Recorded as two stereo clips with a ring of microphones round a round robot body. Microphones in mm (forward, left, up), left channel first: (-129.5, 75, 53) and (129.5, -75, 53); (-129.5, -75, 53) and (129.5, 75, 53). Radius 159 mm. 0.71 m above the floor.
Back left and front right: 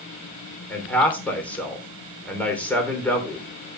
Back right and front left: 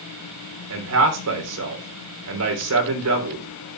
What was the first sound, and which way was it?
A man speaking, 65° left.